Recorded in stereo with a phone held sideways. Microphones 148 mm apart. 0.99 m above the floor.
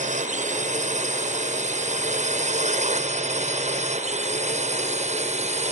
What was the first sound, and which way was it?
A drone, 55° right (ahead or behind).